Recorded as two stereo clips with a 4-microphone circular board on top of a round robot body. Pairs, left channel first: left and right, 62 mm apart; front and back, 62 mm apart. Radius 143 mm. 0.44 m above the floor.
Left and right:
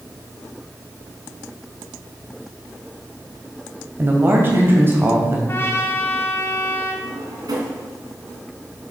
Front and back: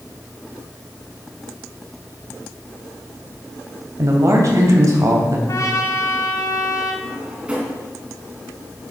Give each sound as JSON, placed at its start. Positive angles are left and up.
{"t": 4.0, "sound": "a man speaking", "azimuth_deg": -145, "distance_m": 2.5}
{"t": 5.5, "sound": "a trumpet", "azimuth_deg": 35, "distance_m": 1.9}
{"t": 7.0, "sound": "a drawer", "azimuth_deg": -110, "distance_m": 3.0}